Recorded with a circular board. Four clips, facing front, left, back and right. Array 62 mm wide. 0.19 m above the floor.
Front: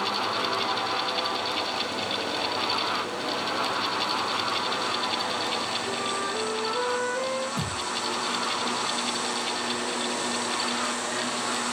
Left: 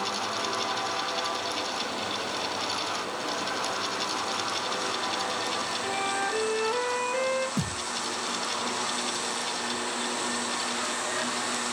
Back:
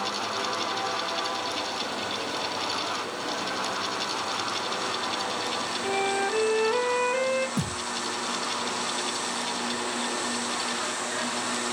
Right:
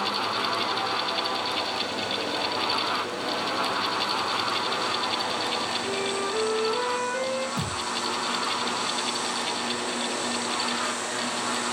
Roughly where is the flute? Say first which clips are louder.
Right 1 dB, back 3 dB; behind.